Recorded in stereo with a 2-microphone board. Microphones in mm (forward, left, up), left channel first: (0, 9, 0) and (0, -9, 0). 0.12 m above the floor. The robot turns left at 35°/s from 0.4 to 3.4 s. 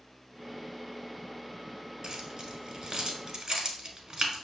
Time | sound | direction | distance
2.0 | keys jangling | 40° right (ahead or behind) | 1.2 m